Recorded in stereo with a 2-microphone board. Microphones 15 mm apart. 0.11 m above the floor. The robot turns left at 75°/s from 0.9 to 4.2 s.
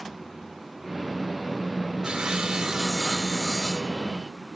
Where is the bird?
I don't hear a bird.